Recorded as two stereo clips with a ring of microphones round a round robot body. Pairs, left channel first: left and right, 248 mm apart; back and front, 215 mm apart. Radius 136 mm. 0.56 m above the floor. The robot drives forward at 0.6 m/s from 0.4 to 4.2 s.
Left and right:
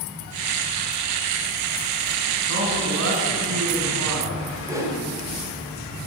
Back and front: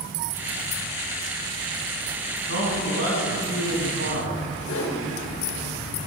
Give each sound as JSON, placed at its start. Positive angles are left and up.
{"t": 2.5, "sound": "a man speaking", "azimuth_deg": -50, "distance_m": 5.5}
{"t": 4.7, "sound": "a whoosh", "azimuth_deg": -165, "distance_m": 2.5}